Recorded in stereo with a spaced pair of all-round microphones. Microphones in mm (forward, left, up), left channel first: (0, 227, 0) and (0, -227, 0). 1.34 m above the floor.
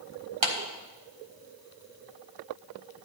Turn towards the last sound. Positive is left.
turn(degrees=-80)